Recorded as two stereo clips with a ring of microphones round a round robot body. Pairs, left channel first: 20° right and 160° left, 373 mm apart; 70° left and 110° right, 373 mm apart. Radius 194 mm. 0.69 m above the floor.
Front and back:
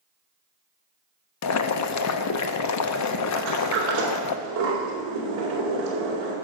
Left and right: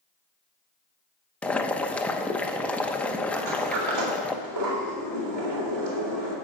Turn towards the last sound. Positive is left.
turn(degrees=-150)